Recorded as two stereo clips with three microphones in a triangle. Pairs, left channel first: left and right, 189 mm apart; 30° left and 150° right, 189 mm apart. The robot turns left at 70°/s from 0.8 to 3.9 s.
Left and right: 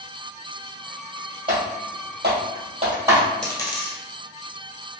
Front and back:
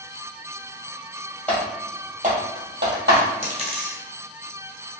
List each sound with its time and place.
1.5 s typing on a keyboard: 55° right, 1.7 m; by 3.3 s straight behind, 1.7 m
3.4 s a dropped coin: 175° left, 1.5 m; by 4.0 s 140° left, 1.5 m